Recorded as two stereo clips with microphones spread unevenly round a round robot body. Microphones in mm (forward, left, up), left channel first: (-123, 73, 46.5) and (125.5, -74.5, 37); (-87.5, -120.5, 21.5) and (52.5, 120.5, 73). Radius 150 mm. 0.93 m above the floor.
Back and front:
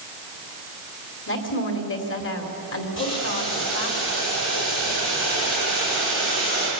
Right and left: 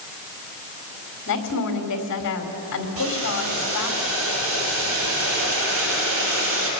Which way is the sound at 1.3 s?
160° right.